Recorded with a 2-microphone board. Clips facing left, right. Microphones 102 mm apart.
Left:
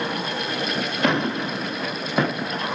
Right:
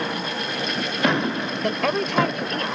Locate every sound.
1.6 s a woman speaking: 75° right (ahead or behind); by 2.7 s 70° right (ahead or behind)